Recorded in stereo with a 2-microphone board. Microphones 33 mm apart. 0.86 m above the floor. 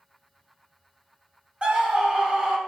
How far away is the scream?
About 1.3 m.